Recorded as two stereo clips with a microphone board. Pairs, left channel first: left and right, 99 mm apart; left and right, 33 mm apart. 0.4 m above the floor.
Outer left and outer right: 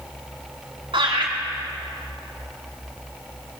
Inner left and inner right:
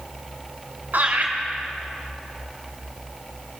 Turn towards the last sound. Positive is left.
turn(degrees=-70)  # may be behind; listen again after turning